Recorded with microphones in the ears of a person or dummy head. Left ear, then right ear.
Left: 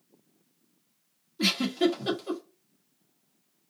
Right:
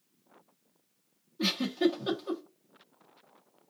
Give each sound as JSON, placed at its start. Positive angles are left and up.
{"t": 1.4, "sound": "a giggle", "side_deg": 10, "distance_m": 1.6}